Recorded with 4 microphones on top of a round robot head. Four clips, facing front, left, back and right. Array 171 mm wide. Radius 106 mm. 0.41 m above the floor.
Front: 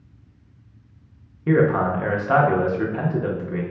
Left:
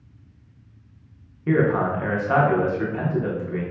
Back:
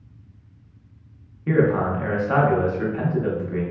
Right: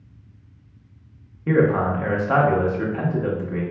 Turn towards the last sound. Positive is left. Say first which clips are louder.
# right 1 dB, front 1 dB
turn(degrees=-20)